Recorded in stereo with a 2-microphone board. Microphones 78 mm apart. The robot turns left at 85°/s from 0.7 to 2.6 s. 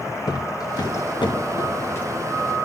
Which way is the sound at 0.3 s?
55° left (ahead or behind).